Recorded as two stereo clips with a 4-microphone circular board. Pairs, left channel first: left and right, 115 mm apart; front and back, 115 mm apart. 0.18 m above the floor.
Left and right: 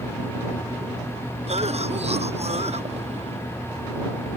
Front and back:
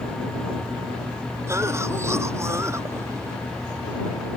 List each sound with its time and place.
1.5 s a cough: 115° right